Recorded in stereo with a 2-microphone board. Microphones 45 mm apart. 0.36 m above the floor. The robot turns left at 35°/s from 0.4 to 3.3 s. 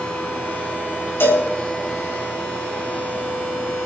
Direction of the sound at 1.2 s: 65° left (ahead or behind).